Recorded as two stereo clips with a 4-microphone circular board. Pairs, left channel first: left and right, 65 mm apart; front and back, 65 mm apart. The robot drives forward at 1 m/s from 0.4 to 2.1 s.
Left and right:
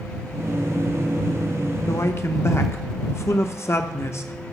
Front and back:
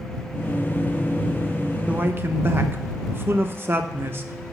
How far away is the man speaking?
About 0.6 m.